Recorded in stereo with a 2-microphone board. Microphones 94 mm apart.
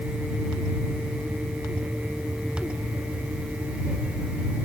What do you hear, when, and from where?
Only background noise.